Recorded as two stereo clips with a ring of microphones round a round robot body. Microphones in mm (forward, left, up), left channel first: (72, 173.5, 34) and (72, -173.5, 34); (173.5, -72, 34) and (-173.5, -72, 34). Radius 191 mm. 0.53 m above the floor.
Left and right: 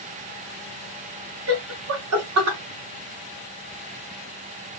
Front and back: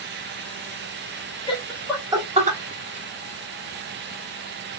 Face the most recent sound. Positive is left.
turn(degrees=-120)